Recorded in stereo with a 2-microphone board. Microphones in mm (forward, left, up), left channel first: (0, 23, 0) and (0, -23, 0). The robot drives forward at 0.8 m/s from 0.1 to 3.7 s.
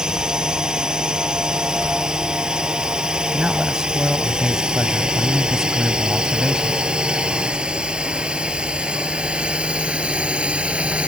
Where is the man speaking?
15° right (ahead or behind).